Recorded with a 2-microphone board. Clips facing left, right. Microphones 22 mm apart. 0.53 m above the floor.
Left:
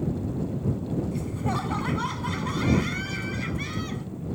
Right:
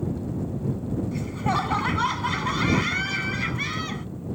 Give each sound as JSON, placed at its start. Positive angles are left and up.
{"t": 1.1, "sound": "laughter", "side_deg": -30}